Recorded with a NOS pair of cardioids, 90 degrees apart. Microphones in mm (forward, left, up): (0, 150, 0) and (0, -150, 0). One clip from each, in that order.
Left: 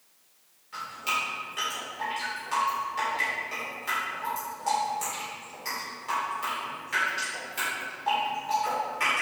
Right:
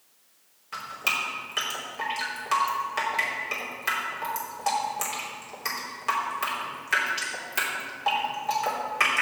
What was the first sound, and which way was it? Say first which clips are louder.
Dripping: right 2 dB; 65° right.